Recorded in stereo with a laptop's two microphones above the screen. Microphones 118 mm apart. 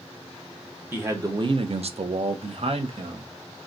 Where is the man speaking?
15° right (ahead or behind), 0.7 m; by 3.3 s 50° right (ahead or behind), 1.4 m.